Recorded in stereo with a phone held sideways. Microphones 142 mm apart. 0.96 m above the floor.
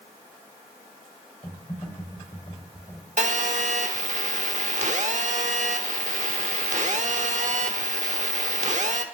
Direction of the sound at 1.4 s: 35° left (ahead or behind).